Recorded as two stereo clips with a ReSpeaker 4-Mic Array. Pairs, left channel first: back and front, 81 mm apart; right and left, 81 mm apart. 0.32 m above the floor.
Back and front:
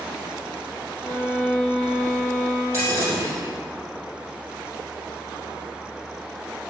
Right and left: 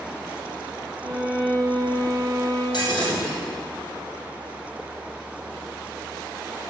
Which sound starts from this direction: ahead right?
Breaking glass, at 2.7 s.